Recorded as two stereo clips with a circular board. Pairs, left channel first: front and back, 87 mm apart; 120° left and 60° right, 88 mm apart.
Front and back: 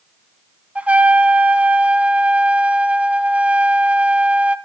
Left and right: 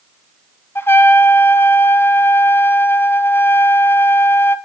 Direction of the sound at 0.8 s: 130° left.